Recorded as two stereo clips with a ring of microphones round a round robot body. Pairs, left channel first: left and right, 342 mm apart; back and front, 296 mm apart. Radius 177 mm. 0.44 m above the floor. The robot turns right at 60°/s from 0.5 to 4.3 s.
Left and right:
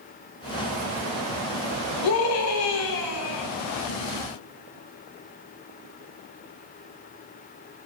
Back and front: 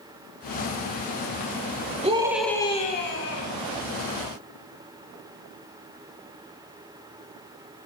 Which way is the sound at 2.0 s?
65° left.